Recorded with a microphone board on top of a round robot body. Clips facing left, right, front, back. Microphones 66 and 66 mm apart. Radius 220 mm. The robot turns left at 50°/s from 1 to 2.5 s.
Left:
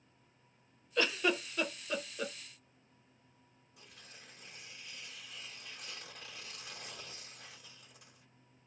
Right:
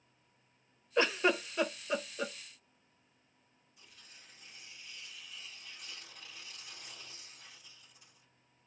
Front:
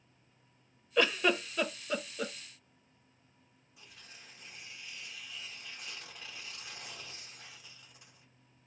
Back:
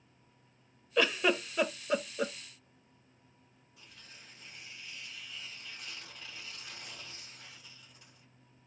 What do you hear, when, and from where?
1.0 s a giggle: 90° right, 1.1 m; by 2.3 s 155° right, 1.1 m
3.8 s tearing paper: 75° left, 2.5 m